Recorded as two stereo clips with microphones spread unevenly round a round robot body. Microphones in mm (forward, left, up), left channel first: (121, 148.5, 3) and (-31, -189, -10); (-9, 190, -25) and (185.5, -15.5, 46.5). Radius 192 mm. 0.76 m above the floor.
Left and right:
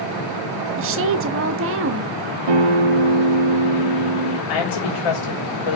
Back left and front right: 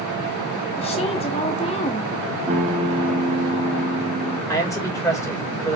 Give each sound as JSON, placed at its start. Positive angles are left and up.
{"t": 0.8, "sound": "a woman speaking", "azimuth_deg": -165, "distance_m": 0.9}
{"t": 2.5, "sound": "a guitar", "azimuth_deg": -125, "distance_m": 1.3}
{"t": 4.5, "sound": "a man speaking", "azimuth_deg": 55, "distance_m": 4.5}